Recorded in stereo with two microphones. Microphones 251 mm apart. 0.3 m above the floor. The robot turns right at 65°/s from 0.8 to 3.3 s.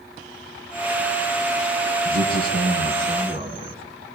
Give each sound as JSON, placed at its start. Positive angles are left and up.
{"t": 2.0, "sound": "a man speaking", "azimuth_deg": -110, "distance_m": 3.5}